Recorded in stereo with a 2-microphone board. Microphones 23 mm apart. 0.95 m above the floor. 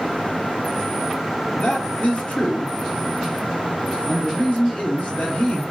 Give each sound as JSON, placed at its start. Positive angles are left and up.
{"t": 1.5, "sound": "a man speaking", "side_deg": 80, "distance_m": 1.4}